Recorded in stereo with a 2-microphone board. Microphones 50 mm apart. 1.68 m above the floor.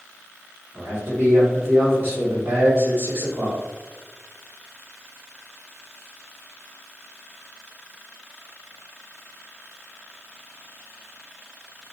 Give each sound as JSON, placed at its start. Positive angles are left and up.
{"t": 0.7, "sound": "a man speaking", "side_deg": -50, "distance_m": 1.6}